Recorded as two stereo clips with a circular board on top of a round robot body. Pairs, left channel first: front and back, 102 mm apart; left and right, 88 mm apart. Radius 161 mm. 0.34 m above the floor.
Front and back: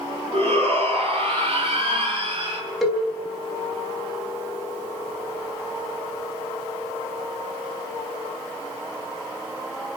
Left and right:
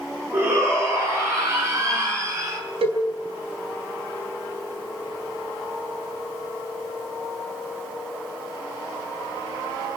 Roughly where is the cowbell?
Right.